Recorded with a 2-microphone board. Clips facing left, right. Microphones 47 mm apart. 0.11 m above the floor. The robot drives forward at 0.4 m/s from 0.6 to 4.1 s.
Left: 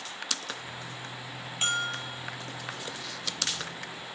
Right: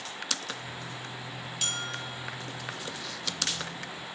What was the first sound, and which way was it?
A bell, 30° left (ahead or behind).